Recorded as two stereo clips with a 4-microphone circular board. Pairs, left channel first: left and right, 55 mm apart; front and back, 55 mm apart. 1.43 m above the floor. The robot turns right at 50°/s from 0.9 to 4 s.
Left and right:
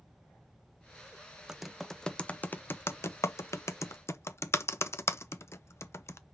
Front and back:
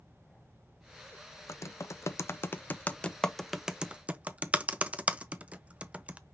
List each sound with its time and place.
1.5 s typing on a keyboard: 10° right, 0.5 m; by 6.2 s 115° left, 0.5 m